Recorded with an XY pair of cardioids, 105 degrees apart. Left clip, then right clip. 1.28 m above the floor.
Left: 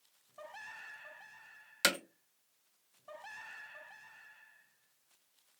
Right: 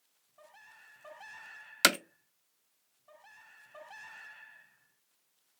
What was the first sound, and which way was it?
Hammering, 45° right.